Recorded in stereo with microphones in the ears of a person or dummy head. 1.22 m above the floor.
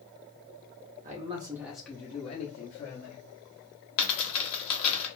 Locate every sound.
1.0 s a man speaking: 30° right (ahead or behind), 0.7 m; by 3.2 s 55° left (ahead or behind), 1.0 m
4.0 s a dropped coin: 60° left (ahead or behind), 1.3 m